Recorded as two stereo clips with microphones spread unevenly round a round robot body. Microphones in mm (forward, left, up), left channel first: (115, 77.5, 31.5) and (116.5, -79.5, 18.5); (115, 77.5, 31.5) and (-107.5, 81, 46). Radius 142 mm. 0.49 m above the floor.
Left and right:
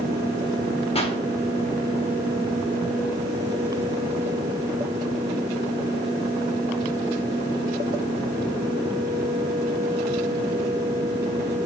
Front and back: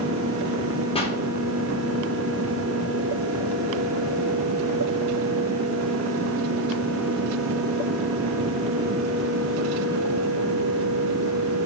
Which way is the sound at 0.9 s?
50° left.